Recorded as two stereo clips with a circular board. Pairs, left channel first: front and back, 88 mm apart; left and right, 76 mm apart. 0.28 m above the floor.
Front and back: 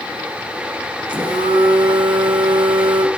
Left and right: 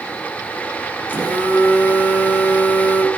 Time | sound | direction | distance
1.1 | a phone buzzing | 150° left | 6.5 m